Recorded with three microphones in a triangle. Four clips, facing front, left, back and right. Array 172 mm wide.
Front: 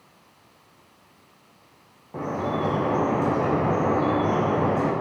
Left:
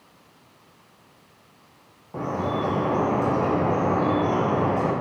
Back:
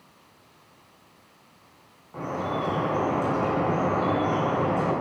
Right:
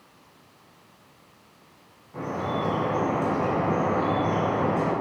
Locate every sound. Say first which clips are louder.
2.1 s dripping: left 2 dB, front 2 dB; 45° left, 3.5 m